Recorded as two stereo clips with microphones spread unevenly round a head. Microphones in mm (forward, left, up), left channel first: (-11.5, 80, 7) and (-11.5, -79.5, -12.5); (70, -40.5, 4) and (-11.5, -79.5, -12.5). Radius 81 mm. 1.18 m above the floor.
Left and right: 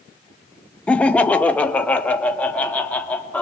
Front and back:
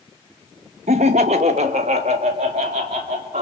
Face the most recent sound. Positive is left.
turn(degrees=170)